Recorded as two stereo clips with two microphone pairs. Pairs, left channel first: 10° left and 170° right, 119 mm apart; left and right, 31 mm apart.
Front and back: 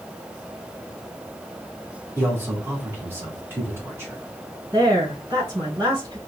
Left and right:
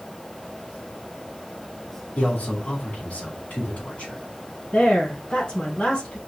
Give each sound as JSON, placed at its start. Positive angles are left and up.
{"t": 2.2, "sound": "a man speaking", "azimuth_deg": 120, "distance_m": 3.0}
{"t": 4.7, "sound": "a woman speaking", "azimuth_deg": 145, "distance_m": 3.5}